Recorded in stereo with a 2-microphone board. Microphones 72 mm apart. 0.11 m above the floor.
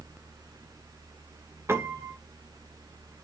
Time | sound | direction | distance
1.7 | a piano | 35° right (ahead or behind) | 1.5 m